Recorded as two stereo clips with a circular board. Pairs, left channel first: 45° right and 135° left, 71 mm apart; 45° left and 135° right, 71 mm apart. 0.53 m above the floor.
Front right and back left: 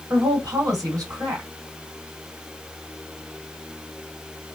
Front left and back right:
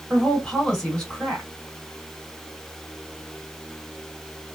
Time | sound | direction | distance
0.1 | a woman speaking | 120° left | 1.7 m